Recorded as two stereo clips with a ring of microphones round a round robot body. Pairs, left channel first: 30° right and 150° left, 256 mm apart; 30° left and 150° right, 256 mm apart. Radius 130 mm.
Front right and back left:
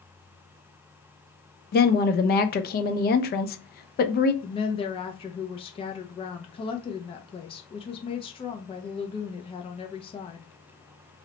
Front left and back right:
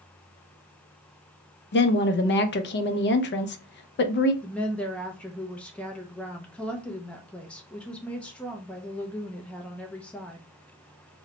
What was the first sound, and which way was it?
A woman speaking, 5° left.